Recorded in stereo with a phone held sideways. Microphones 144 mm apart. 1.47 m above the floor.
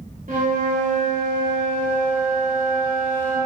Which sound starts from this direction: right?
A flute, at 0.3 s.